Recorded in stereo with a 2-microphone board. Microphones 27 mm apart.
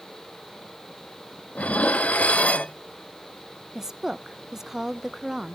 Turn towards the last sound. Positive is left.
turn(degrees=-15)  # may be behind; listen again after turning